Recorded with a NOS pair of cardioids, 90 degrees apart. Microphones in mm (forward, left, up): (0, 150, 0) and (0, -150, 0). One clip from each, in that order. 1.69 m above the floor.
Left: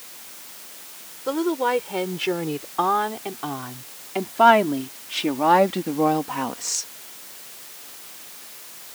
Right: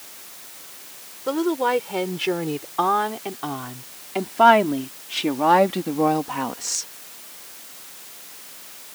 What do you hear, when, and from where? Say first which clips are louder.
1.3 s a woman speaking: right 1 dB; 5° right; by 6.9 s straight ahead